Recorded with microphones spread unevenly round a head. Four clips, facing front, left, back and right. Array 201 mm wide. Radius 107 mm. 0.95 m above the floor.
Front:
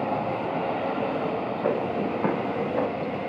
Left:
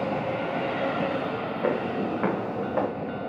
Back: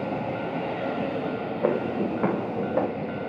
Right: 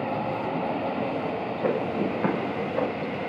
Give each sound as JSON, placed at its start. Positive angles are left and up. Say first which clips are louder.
{"t": 1.6, "sound": "footsteps", "louder": "right 1 dB, back 2 dB", "azimuth_deg": -175, "distance_m": 3.0}